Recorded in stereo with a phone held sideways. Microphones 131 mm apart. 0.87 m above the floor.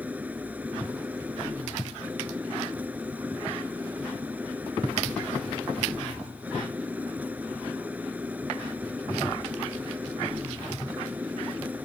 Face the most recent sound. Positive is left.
turn(degrees=-10)  # may be behind; listen again after turning